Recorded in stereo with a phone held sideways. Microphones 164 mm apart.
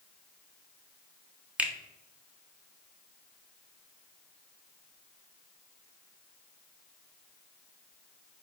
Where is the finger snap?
5° right (ahead or behind), 0.5 m.